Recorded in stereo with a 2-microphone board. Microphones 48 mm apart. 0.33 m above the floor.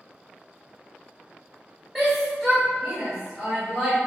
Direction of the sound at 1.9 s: Centre (ahead or behind).